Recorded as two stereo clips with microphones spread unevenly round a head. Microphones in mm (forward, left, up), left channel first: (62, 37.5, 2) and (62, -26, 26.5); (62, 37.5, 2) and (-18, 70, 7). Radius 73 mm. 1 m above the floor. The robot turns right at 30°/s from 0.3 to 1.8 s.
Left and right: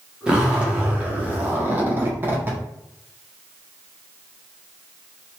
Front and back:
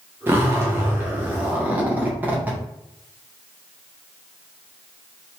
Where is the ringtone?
No ringtone in this recording.